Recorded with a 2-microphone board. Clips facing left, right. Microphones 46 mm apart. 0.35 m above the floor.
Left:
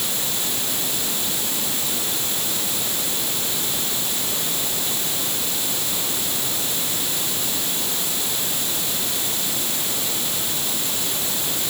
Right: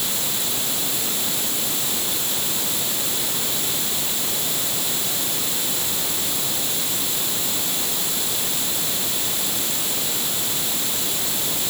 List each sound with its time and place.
Only background noise.